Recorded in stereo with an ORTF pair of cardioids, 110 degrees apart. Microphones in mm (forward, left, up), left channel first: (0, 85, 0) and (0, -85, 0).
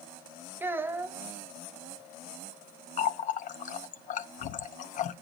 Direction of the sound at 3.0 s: 50° left.